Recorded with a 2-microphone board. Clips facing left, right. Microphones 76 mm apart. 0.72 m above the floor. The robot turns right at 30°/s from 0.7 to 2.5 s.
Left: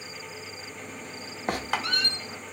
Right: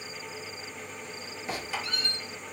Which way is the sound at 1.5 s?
55° left (ahead or behind).